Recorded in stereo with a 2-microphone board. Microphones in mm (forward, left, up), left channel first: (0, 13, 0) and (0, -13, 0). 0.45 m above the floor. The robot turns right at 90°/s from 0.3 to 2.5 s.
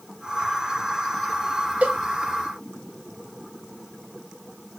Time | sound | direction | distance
1.8 | a cowbell | 80° right | 5 m